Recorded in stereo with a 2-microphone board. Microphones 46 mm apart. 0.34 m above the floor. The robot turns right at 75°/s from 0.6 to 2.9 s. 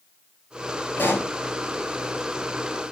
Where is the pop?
40° left (ahead or behind), 4 m; by 1.3 s 65° left (ahead or behind), 4 m.